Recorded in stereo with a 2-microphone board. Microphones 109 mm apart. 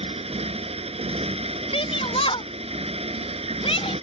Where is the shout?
70° left (ahead or behind).